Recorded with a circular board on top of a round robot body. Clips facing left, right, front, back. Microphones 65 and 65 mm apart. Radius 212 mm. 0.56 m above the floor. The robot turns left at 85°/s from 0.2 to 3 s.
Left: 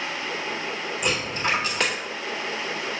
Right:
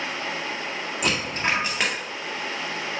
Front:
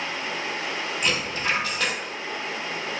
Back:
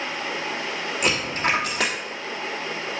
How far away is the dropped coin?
About 1.7 m.